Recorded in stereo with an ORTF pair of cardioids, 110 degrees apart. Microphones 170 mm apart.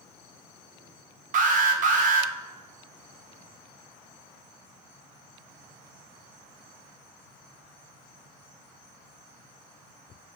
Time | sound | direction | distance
1.3 | an alarm | 50° right | 1.2 m